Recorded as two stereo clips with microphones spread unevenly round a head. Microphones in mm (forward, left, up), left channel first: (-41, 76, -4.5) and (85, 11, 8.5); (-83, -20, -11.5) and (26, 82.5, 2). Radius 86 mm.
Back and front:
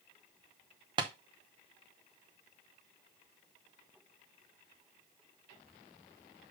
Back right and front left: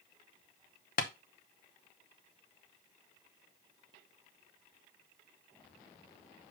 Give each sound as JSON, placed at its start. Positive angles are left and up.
{"t": 1.0, "sound": "tapping", "azimuth_deg": -90, "distance_m": 0.6}